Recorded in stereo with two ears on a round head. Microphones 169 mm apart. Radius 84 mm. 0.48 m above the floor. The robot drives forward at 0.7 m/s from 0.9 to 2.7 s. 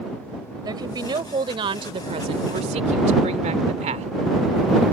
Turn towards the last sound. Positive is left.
turn(degrees=-35)  # may be behind; listen again after turning